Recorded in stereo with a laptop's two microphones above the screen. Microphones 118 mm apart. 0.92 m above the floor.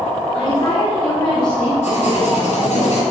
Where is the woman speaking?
40° left (ahead or behind), 7.5 m; by 1.7 s 45° left (ahead or behind), 7 m.